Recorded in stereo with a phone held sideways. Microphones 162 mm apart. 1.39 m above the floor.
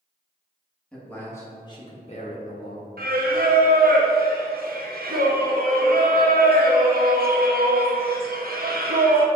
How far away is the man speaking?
About 1.8 m.